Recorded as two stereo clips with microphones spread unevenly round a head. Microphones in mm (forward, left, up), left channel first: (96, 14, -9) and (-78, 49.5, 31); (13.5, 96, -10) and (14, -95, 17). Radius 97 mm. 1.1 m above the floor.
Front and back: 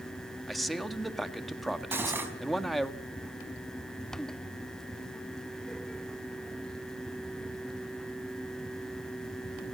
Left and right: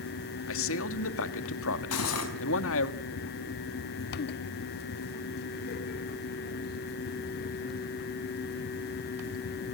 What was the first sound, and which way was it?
A man speaking, 75° left.